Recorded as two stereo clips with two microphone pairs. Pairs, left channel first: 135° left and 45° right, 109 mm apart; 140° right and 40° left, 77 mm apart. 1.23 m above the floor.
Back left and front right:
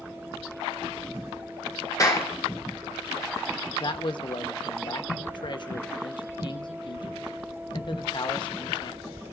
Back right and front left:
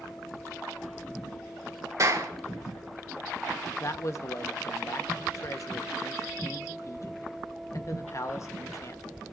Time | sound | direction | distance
2.0 | a clap | 80° left | 3.5 m
3.8 | a man speaking | 175° left | 0.9 m